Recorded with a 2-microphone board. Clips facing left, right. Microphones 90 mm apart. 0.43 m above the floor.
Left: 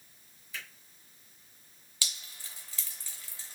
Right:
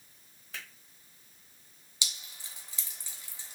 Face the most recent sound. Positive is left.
turn(degrees=-20)  # may be behind; listen again after turning